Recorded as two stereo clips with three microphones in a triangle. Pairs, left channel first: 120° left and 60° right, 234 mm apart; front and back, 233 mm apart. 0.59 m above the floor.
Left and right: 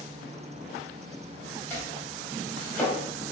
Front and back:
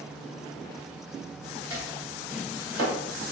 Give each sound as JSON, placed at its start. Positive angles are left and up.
{"t": 1.7, "sound": "chopping", "azimuth_deg": -160, "distance_m": 1.8}